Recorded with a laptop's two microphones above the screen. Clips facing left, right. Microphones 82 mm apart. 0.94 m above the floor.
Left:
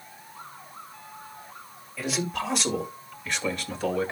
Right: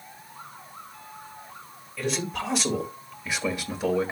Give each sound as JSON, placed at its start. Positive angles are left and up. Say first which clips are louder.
{"t": 2.0, "sound": "a man speaking", "louder": "even", "side_deg": 5, "distance_m": 3.5}